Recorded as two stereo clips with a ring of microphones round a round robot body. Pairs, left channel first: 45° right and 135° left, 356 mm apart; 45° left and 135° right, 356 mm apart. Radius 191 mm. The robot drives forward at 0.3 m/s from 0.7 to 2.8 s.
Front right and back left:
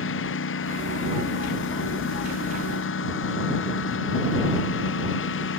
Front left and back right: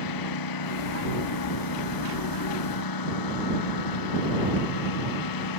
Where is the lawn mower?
15° left.